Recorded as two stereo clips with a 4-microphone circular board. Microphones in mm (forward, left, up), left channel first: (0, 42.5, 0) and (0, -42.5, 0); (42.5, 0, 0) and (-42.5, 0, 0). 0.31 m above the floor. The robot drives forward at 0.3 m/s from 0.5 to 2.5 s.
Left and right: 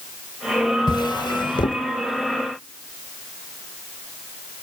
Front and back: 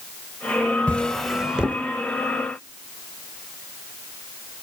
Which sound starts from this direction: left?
A drawer, at 0.9 s.